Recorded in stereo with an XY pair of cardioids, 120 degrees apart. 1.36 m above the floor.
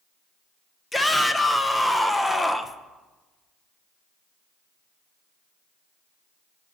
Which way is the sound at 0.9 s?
15° left.